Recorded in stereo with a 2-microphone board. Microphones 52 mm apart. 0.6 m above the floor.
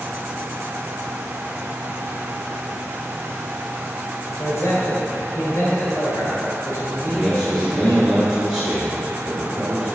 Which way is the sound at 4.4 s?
65° left (ahead or behind).